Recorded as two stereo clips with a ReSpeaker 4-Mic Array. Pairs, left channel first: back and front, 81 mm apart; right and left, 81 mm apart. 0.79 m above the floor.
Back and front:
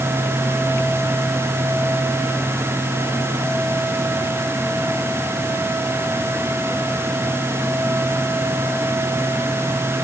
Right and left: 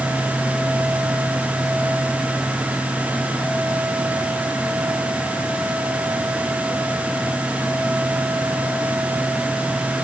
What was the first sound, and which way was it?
Only background noise.